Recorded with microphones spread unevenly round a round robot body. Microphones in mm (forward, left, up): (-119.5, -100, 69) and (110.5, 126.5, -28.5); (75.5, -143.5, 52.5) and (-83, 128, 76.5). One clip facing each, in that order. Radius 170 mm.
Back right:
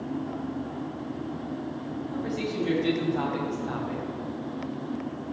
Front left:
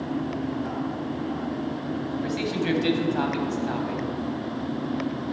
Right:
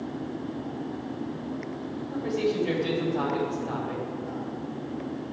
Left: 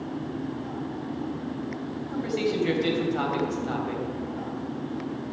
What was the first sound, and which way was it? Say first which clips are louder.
A man speaking: front left 1 dB, even; 70° left.